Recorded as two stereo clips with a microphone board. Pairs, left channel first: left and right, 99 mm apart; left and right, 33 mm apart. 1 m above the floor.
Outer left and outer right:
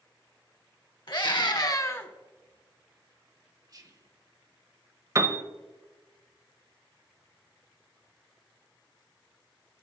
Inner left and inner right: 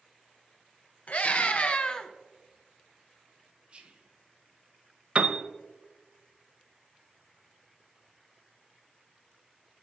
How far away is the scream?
About 1.3 m.